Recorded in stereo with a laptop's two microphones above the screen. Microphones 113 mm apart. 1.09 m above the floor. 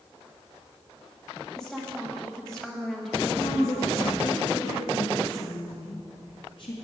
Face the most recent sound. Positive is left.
turn(degrees=50)  # may be behind; listen again after turning